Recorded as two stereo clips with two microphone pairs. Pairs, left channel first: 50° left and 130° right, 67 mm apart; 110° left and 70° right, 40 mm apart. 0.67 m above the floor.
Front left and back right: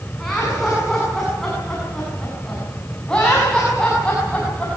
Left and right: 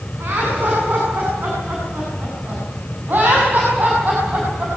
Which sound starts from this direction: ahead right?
Laughter, at 0.2 s.